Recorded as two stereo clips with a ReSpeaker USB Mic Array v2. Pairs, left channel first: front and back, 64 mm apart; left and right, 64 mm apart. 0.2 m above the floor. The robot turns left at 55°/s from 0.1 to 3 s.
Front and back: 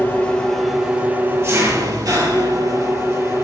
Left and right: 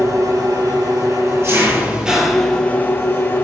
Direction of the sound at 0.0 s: 60° right.